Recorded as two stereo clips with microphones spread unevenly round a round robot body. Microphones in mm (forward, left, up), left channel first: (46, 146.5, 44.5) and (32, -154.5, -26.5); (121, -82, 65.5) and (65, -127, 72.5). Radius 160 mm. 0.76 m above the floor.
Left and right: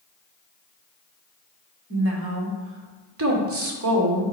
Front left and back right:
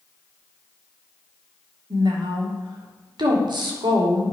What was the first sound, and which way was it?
A woman speaking, 135° right.